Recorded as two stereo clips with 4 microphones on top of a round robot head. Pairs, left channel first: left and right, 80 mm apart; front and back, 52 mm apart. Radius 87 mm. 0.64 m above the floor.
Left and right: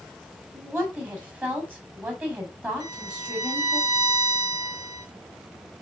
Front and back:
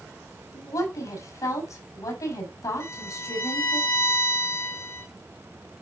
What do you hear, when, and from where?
0.5 s a woman speaking: 20° right, 5 m
2.8 s a violin: 45° right, 7.5 m